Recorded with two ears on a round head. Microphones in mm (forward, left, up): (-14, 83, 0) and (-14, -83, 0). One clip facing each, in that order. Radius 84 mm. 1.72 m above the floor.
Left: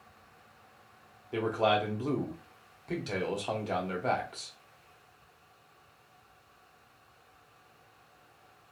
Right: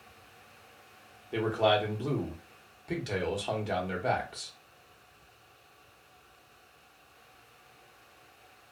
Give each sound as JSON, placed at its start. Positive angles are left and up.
{"t": 1.3, "sound": "a man speaking", "side_deg": -5, "distance_m": 0.9}